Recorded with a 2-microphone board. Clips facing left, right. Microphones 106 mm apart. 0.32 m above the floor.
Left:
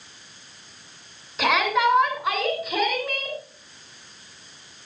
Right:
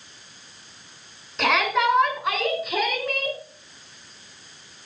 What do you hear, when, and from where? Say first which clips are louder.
1.4 s a shout: left 1 dB; 5° left (ahead or behind), 4 m; by 3.4 s centre (ahead or behind), 5 m